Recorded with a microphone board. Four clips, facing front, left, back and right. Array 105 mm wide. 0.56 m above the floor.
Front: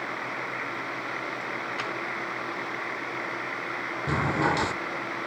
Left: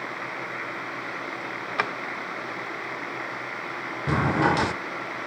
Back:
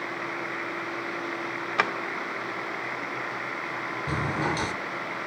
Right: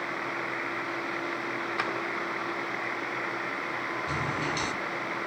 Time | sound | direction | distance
1.8 | a drawer | 150° left | 0.8 m
4.1 | a drawer | 75° left | 0.5 m